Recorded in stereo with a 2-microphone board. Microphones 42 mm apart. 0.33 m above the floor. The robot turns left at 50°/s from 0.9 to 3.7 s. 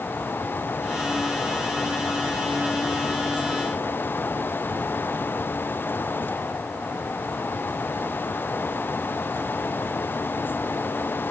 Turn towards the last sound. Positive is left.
No sound to turn to.